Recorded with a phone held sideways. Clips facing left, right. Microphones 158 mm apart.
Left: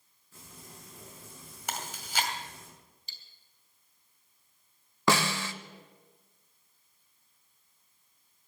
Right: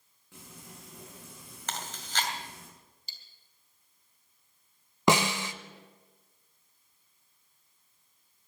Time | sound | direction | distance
0.3 | frying | 80° right | 7.5 m
1.7 | chewing | 10° left (ahead or behind) | 2 m
3.1 | cutlery clinking | 35° right (ahead or behind) | 3 m
5.1 | a snare drum | 20° right (ahead or behind) | 0.7 m